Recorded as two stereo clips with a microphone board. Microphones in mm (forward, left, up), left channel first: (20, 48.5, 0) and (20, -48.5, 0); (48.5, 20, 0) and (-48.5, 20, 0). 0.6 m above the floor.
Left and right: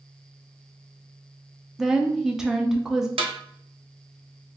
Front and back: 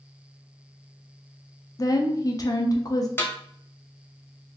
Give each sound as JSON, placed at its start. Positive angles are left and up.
{"t": 1.8, "sound": "a woman speaking", "azimuth_deg": -10, "distance_m": 0.6}
{"t": 3.2, "sound": "a snare drum", "azimuth_deg": -70, "distance_m": 0.8}